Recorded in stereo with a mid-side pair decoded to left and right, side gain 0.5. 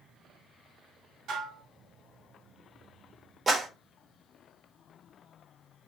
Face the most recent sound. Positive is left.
turn(degrees=-30)